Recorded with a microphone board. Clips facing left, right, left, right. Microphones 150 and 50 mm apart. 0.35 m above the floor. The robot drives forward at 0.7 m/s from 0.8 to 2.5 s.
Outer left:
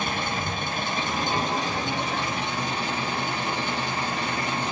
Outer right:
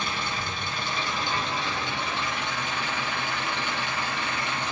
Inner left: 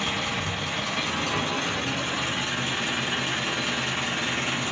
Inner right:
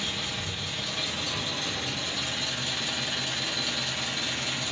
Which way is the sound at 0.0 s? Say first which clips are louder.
Outer left 4 dB, inner left 6 dB; 50° left (ahead or behind).